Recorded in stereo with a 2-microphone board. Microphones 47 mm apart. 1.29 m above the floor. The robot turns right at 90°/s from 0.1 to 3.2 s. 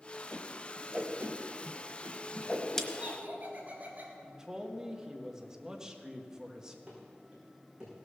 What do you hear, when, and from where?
0.3 s a whoosh: 25° left (ahead or behind), 1.2 m; by 2.8 s 20° left (ahead or behind), 1.2 m
2.9 s laughter: 20° right (ahead or behind), 3.5 m; by 4.1 s 45° right (ahead or behind), 3.5 m
4.2 s a man speaking: 15° right (ahead or behind), 1.5 m
6.9 s running footsteps: 25° right (ahead or behind), 5.5 m; by 8.1 s 20° right (ahead or behind), 5 m